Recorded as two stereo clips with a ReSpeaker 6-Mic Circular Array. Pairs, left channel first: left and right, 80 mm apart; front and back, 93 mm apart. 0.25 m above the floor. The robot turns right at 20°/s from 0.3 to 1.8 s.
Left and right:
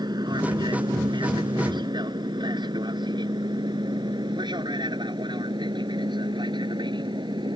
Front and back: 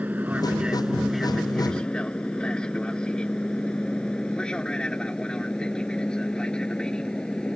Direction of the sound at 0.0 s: 105° right.